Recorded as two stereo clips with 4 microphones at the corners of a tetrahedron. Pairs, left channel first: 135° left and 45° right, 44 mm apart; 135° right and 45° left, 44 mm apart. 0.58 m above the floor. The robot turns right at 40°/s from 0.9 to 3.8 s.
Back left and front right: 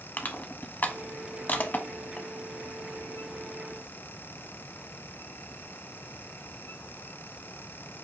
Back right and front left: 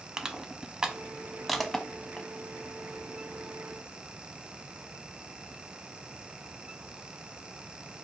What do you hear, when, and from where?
0.2 s crushing: 115° left, 0.5 m; by 2.3 s 165° left, 0.5 m